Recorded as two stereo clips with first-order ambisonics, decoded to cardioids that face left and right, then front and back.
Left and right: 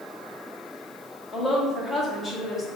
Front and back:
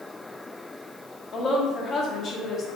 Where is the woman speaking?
30° left, 0.7 m.